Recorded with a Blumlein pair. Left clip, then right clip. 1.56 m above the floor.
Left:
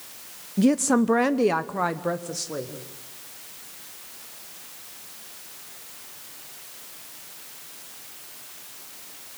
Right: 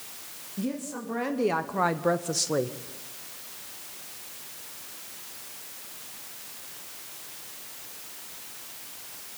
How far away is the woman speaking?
About 0.9 m.